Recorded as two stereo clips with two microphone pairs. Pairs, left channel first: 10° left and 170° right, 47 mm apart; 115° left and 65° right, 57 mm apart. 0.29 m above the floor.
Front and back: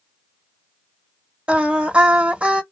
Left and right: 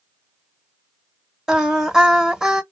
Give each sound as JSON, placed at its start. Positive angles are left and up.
{"t": 1.5, "sound": "singing", "azimuth_deg": -135, "distance_m": 0.7}